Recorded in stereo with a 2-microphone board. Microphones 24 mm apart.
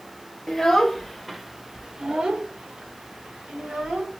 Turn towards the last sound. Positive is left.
turn(degrees=-50)  # may be behind; listen again after turning